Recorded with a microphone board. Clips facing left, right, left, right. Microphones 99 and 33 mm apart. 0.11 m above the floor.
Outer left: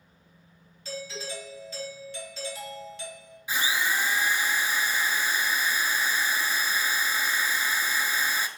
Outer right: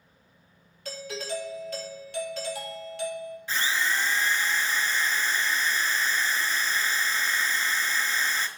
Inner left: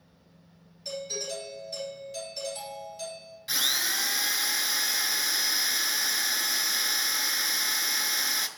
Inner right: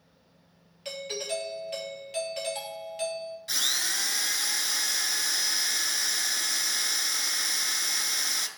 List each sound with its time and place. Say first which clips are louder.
0.8 s a doorbell: outer right 2 dB, inner right 1 dB; 60° right (ahead or behind), 2.5 m
3.5 s a drill: outer left 1 dB, inner left 2 dB; 10° left (ahead or behind), 0.5 m